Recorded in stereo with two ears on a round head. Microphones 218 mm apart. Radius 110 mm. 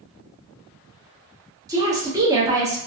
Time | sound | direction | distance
1.7 | a woman speaking | 15° right (ahead or behind) | 0.8 m